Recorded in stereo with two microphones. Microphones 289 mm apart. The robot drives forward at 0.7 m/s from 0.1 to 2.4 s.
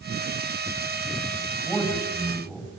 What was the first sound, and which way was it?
A man speaking, centre (ahead or behind).